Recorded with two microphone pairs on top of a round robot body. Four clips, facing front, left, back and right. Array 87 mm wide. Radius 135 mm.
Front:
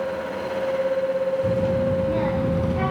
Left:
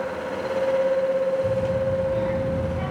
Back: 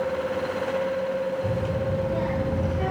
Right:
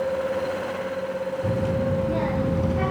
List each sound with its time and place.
1.4 s a child speaking: 45° right, 6 m; by 2.9 s 35° right, 4.5 m